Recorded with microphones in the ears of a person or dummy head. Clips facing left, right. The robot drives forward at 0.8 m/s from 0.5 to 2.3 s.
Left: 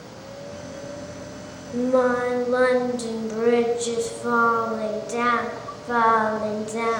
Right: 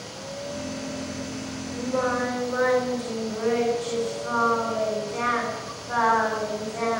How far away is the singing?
About 1.8 m.